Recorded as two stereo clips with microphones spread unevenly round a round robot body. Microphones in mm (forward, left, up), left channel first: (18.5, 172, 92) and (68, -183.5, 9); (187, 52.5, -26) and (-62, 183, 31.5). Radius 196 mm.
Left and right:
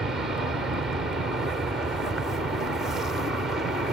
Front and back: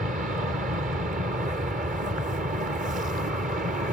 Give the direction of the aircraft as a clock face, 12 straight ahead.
5 o'clock.